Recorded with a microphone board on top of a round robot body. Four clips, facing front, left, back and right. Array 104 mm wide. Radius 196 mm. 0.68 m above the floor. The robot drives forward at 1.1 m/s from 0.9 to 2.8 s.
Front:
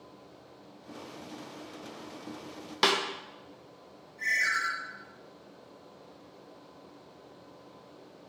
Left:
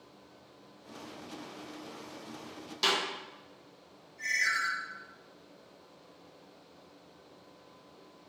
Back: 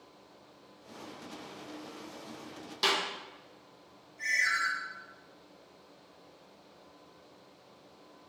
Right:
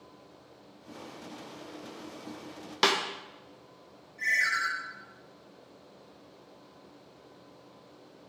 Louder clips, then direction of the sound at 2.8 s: Right 5 dB, front 4 dB; 50° right.